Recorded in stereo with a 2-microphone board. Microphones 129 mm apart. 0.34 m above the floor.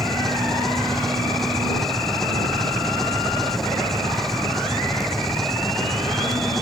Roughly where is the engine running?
Centre.